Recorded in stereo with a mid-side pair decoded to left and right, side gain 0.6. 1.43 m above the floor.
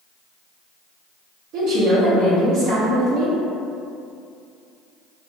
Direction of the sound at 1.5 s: 65° right.